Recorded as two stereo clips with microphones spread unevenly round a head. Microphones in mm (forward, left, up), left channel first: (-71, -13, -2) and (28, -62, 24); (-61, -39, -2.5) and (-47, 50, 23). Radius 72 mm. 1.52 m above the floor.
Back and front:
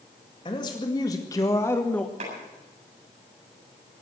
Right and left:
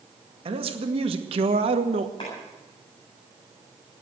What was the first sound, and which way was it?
A man speaking, 90° left.